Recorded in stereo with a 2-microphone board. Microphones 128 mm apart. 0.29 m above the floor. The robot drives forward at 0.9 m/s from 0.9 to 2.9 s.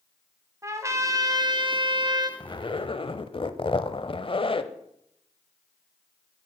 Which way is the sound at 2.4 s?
35° left (ahead or behind).